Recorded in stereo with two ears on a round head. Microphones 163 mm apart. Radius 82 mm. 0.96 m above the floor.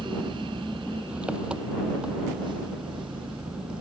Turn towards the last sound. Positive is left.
turn(degrees=-5)  # may be behind; listen again after turning